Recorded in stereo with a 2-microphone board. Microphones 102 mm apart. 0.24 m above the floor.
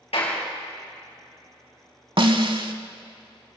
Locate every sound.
0.1 s a clap: 75° left (ahead or behind), 3.5 m
2.2 s a snare drum: 55° right (ahead or behind), 0.7 m